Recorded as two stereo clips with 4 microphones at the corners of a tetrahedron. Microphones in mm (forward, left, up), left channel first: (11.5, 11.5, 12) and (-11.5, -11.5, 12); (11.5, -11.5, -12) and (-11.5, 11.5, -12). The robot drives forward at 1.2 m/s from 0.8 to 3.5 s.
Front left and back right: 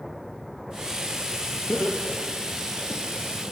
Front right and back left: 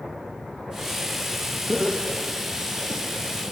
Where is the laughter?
70° left, 4 m; by 3.0 s 95° left, 3.5 m.